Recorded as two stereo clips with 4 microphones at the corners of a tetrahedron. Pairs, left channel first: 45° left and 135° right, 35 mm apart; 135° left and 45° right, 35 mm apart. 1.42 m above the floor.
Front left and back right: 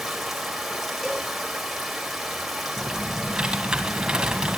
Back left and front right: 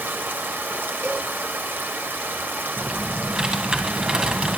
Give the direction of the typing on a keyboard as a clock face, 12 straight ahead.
3 o'clock.